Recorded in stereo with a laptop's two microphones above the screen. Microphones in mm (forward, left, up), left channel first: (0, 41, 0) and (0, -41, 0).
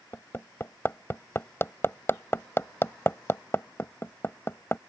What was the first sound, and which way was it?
Hammering, 30° left (ahead or behind).